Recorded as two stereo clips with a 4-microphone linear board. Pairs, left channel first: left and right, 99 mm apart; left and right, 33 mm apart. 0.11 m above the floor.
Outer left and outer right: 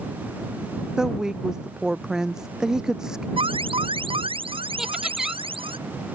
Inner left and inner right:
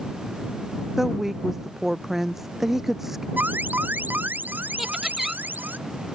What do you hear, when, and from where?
1.0 s a woman speaking: 5° right (ahead or behind)
3.4 s an alarm: 65° right (ahead or behind)
4.8 s laughter: 5° right (ahead or behind)